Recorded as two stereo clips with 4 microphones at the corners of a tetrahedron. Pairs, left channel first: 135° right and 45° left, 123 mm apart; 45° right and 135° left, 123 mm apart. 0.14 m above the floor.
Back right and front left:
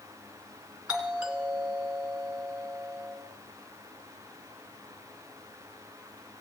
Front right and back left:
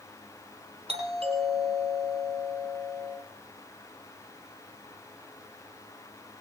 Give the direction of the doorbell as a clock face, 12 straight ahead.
8 o'clock.